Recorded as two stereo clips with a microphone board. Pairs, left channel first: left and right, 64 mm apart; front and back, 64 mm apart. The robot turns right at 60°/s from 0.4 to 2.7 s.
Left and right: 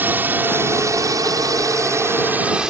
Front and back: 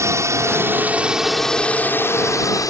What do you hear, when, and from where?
0.0 s a drone: 145° right; by 2.7 s 10° right